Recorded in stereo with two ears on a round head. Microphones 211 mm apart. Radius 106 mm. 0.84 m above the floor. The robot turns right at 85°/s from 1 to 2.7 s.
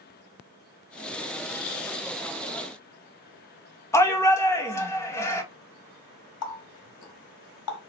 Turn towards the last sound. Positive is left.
turn(degrees=75)  # may be behind; listen again after turning